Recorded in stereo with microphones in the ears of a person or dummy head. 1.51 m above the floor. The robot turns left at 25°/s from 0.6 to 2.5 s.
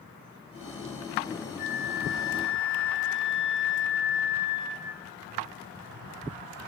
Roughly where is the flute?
Left.